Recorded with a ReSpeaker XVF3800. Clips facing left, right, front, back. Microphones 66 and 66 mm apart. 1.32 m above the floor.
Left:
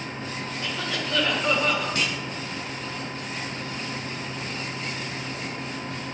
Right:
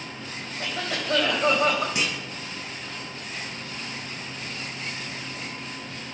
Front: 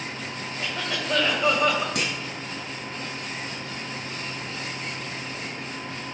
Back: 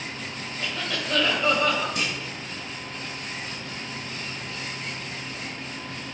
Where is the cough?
75° right, 3.5 m.